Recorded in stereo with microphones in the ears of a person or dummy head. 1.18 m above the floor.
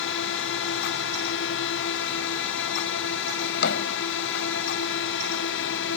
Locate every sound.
0.0 s a drone: 60° left (ahead or behind)
3.4 s a drawer: 65° left (ahead or behind)